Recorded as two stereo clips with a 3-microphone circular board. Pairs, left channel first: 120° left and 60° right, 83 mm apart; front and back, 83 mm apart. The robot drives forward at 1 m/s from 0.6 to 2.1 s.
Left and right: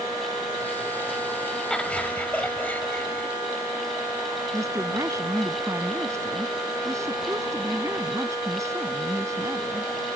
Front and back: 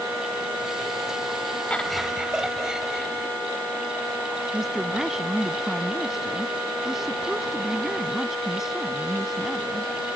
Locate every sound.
1.7 s laughter: 50° left; by 3.3 s 115° left
4.5 s a woman speaking: 95° right